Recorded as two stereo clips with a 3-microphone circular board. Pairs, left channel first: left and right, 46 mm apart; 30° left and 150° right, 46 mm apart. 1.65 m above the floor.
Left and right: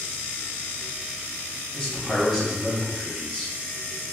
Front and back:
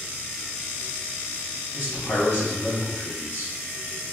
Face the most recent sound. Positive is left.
turn(degrees=20)